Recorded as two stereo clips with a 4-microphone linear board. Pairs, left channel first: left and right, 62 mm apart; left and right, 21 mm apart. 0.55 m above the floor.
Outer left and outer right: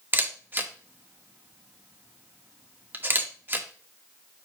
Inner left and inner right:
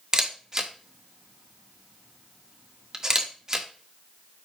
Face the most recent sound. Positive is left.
turn(degrees=-35)  # may be behind; listen again after turning